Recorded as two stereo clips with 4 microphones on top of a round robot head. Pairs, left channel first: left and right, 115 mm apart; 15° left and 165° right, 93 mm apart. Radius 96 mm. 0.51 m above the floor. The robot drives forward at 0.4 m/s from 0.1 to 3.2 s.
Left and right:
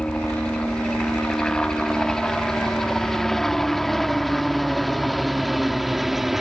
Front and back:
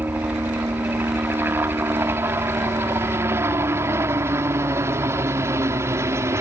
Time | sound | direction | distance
0.0 | a helicopter | 160° left | ?